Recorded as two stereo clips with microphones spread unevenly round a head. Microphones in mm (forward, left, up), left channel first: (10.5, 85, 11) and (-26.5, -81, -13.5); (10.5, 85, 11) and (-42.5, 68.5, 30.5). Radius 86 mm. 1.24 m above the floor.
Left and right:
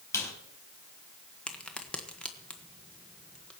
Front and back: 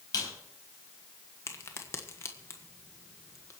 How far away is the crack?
About 1.4 m.